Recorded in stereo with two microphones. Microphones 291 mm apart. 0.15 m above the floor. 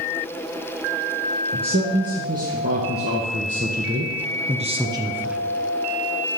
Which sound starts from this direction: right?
A man speaking, at 1.5 s.